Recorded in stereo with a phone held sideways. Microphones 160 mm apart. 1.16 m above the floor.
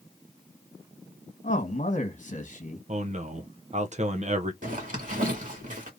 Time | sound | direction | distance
1.4 | a man speaking | 50° left (ahead or behind) | 1.3 m
2.9 | a man speaking | 45° right (ahead or behind) | 0.6 m
4.6 | a zipper | 55° right (ahead or behind) | 1.9 m